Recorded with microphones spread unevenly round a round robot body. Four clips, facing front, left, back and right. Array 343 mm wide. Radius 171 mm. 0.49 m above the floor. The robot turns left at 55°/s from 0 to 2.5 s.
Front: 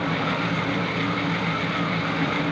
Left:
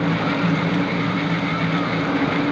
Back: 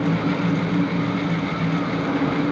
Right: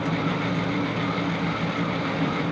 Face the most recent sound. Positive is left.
No sound to turn to.